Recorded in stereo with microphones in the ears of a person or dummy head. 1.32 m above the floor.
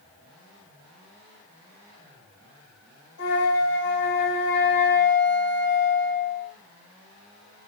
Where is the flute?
70° left (ahead or behind), 3 m.